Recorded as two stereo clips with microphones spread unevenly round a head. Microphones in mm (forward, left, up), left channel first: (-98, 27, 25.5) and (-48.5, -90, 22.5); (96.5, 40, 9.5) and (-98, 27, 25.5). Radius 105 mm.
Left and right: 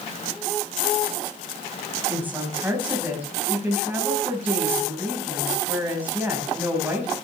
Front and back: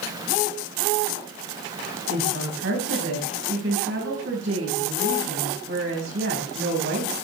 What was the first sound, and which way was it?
A woman speaking, 140° right.